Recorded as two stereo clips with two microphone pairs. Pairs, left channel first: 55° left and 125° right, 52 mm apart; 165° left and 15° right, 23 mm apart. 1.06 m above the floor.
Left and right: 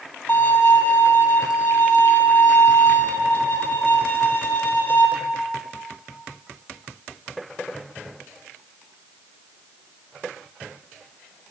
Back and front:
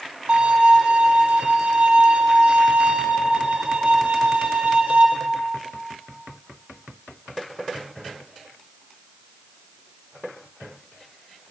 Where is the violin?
5° left, 2.5 m.